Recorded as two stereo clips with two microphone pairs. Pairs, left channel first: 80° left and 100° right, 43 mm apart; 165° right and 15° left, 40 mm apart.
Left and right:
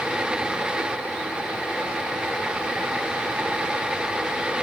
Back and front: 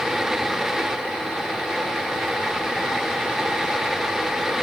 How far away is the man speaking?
No man speaking in this recording.